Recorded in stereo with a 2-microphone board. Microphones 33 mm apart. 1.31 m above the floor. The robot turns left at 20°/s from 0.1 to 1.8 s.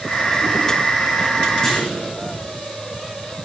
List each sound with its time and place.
1.6 s a clunk: 15° left (ahead or behind), 5.5 m; by 2.0 s 20° left (ahead or behind), 5.5 m